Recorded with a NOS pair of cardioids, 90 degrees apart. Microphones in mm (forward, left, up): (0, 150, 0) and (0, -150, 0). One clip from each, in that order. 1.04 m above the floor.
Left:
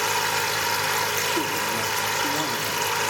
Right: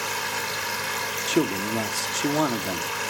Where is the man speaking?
50° right, 1.8 m.